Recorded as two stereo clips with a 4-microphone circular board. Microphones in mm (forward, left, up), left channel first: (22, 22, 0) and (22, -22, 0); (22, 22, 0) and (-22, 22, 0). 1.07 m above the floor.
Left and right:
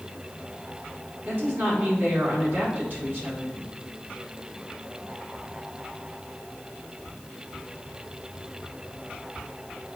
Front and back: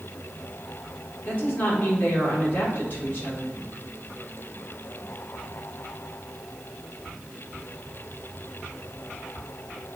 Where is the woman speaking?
50° right, 2.5 m.